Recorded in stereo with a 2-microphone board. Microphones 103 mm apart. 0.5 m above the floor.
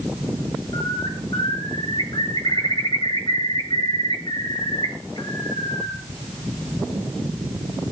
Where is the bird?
45° left (ahead or behind), 9.5 m.